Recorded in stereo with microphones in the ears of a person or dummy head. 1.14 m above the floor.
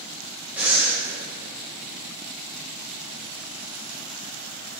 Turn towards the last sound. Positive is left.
turn(degrees=-10)  # may be behind; listen again after turning